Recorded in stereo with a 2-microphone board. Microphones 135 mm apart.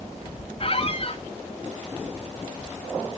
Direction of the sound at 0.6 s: 45° left (ahead or behind).